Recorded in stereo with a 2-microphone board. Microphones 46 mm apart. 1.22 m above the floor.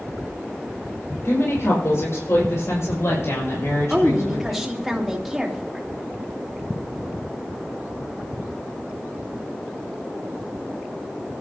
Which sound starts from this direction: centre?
A woman speaking, at 3.9 s.